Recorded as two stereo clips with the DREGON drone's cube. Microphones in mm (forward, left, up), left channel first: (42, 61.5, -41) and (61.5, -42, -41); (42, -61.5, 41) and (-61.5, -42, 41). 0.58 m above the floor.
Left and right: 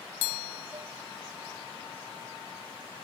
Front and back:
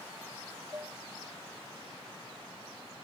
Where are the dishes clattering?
125° right.